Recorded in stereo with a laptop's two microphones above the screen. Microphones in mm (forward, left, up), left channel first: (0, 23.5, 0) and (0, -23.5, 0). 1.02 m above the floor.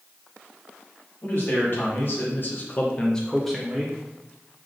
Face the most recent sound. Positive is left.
turn(degrees=-10)  # may be behind; listen again after turning